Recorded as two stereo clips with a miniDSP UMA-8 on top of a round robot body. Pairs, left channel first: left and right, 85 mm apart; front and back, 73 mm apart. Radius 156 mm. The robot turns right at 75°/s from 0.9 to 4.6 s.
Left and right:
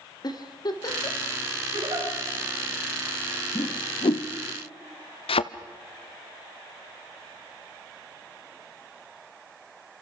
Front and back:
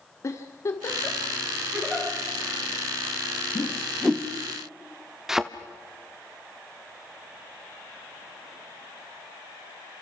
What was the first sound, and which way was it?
A giggle, 50° left.